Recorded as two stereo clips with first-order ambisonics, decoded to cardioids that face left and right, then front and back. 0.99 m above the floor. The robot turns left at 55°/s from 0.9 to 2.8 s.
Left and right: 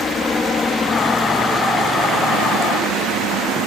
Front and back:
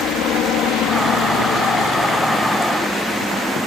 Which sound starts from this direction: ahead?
A helicopter, at 0.0 s.